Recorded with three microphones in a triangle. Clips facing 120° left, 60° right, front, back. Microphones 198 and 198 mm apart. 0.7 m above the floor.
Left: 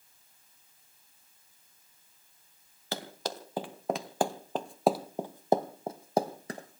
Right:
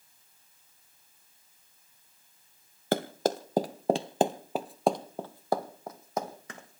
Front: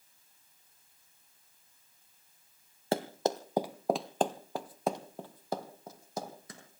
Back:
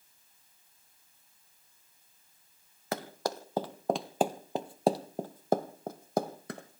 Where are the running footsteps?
50° right, 1.1 m; by 6.8 s 170° left, 1.6 m.